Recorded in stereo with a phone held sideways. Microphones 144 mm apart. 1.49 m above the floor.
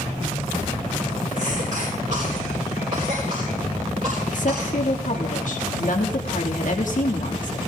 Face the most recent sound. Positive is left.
turn(degrees=65)  # may be behind; listen again after turning